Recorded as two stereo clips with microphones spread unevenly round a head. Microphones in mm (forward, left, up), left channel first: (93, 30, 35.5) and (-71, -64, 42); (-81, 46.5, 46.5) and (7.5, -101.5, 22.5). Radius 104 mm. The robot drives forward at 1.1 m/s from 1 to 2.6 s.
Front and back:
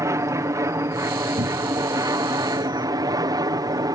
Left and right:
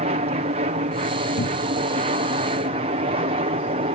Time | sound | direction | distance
0.0 | an aircraft | 80° right | ?
1.4 | a cupboard door | 150° left | ?